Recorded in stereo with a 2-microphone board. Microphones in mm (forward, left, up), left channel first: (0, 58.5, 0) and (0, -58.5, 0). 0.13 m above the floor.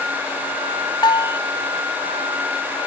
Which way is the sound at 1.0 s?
40° left (ahead or behind).